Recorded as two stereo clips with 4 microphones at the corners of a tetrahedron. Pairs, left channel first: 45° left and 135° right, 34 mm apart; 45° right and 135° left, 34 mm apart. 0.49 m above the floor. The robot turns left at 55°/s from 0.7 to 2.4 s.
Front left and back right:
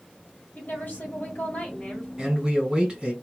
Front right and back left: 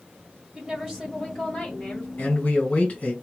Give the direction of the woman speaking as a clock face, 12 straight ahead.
10 o'clock.